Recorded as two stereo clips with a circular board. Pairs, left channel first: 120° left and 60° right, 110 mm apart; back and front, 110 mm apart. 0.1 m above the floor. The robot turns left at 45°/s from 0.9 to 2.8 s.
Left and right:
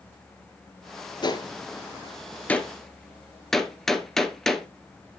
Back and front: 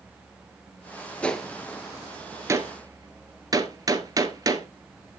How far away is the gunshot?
About 1.0 m.